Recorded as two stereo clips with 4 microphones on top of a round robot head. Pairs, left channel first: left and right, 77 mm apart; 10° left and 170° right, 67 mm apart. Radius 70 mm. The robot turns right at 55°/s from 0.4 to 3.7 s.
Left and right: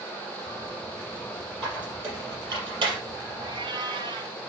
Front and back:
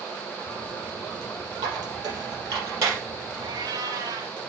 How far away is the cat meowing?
About 1.1 m.